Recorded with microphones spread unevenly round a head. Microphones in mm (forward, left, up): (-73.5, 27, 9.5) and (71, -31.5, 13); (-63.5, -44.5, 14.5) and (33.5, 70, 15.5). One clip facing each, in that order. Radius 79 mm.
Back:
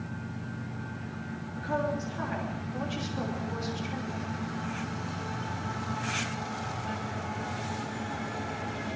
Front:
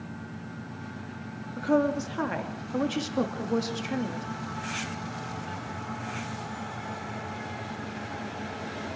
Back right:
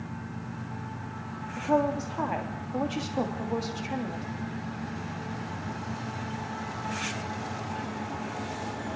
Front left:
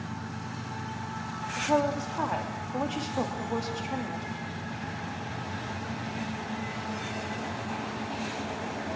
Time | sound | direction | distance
1.6 | a woman speaking | 45° right | 3 m